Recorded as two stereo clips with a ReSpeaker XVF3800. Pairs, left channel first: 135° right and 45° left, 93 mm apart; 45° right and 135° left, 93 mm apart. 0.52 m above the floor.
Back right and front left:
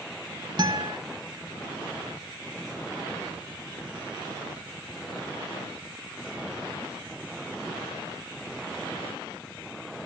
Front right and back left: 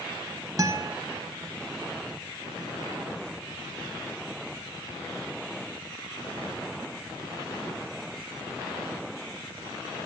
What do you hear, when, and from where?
0.6 s a guitar: 85° left, 1.4 m